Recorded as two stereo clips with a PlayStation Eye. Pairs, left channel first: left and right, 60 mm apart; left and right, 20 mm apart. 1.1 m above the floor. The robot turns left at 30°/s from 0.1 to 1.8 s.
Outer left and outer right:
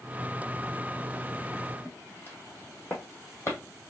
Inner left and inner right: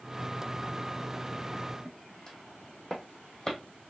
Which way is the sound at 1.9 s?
25° left (ahead or behind).